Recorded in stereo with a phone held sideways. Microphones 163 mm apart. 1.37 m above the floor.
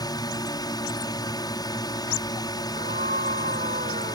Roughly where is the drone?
Left.